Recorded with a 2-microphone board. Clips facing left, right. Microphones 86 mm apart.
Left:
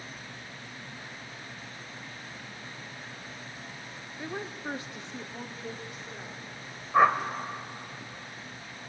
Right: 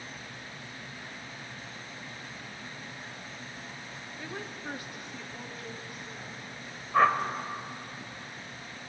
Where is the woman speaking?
15° left (ahead or behind), 0.7 m; by 6.5 s 25° left (ahead or behind), 3 m.